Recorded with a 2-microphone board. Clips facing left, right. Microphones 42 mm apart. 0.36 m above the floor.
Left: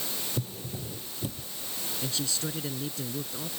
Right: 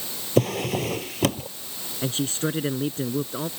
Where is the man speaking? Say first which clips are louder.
Right 8 dB; 40° right (ahead or behind).